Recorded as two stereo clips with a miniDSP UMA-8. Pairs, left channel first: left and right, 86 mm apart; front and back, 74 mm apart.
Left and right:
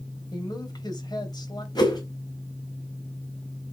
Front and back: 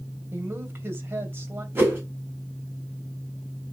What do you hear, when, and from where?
0.3 s a woman speaking: 125° left, 2.5 m
1.8 s a whoosh: 125° left, 4 m